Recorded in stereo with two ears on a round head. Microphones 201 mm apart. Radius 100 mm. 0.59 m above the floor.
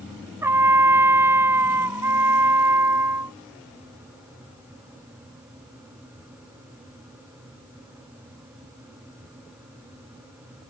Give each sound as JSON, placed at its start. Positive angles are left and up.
{"t": 0.4, "sound": "a trumpet", "side_deg": -10}